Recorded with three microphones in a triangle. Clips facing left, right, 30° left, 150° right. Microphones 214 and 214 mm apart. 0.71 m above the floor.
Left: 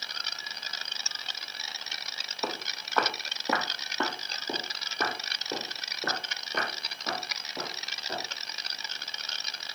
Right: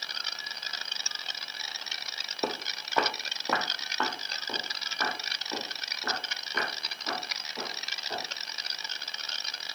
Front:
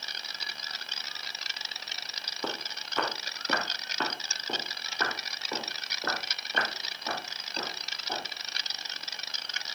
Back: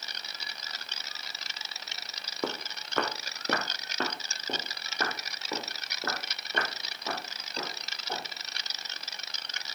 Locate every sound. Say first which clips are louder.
2.4 s footsteps: right 3 dB, back 3 dB; 145° right, 2 m; by 8.2 s 135° left, 9.5 m